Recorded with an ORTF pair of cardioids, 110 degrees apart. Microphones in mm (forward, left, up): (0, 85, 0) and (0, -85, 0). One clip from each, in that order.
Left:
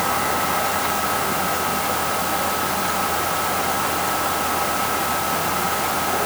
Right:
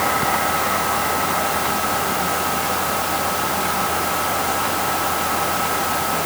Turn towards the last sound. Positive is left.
No sound to turn to.